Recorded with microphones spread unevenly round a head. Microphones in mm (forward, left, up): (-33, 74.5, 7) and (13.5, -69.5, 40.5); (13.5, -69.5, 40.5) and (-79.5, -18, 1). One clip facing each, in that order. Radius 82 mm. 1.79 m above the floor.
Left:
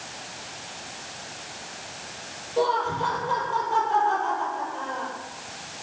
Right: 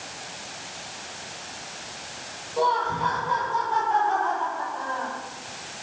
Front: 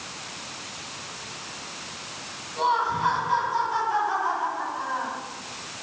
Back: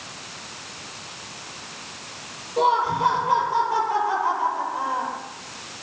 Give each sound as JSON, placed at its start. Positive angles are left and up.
{"t": 2.6, "sound": "laughter", "azimuth_deg": 180, "distance_m": 8.0}